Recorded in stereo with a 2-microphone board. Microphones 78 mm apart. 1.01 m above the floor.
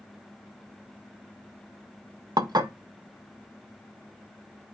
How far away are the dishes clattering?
About 0.5 m.